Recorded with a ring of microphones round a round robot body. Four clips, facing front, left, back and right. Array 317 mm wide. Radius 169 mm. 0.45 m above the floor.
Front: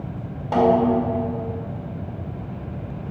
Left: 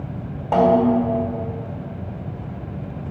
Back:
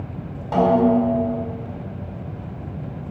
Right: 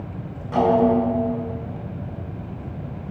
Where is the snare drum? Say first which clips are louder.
Left 2 dB, back 1 dB; 80° left, 2.0 m.